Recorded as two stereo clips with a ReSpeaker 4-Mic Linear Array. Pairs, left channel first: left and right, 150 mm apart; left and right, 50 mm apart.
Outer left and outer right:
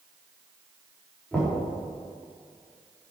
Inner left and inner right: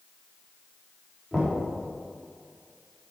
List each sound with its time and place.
1.3 s knocking: 10° left (ahead or behind), 3.5 m